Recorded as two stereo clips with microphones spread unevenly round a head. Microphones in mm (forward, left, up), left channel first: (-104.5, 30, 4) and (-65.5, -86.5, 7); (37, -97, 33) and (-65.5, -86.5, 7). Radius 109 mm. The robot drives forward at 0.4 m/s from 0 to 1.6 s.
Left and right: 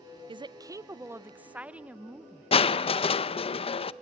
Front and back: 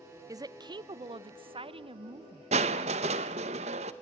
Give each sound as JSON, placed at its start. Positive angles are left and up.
{"t": 0.3, "sound": "a woman speaking", "azimuth_deg": -125, "distance_m": 0.5}
{"t": 2.5, "sound": "crushing", "azimuth_deg": 135, "distance_m": 0.6}